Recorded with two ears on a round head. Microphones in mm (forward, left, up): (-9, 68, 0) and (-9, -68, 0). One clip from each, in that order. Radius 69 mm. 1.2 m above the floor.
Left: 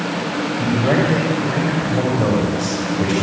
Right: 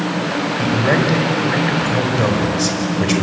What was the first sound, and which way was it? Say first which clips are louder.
A man speaking: right 1 dB; 45° right (ahead or behind).